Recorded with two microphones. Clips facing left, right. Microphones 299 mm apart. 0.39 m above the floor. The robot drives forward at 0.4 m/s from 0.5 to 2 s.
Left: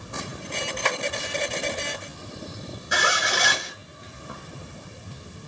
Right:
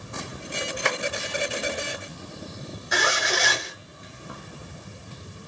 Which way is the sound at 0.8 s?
15° right (ahead or behind).